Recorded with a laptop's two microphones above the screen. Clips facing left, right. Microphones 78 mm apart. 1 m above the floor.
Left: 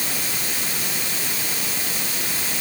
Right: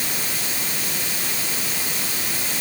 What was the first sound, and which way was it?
Only background noise.